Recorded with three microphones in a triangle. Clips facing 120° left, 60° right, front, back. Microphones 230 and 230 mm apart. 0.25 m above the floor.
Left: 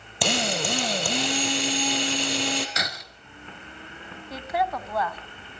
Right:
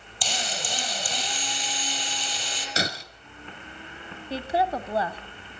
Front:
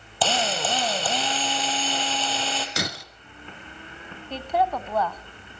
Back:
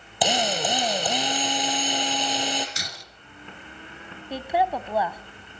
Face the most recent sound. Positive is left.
turn(degrees=-105)